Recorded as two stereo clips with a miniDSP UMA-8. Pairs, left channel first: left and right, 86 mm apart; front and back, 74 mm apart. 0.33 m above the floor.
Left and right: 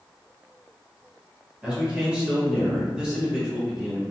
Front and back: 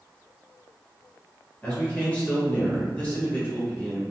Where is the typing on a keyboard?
No typing on a keyboard in this recording.